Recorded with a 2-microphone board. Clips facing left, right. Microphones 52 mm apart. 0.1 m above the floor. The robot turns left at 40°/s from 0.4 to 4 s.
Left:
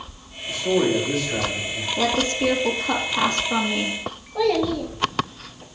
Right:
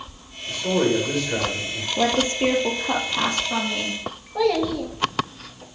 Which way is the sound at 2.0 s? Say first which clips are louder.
Right 1 dB; 125° right.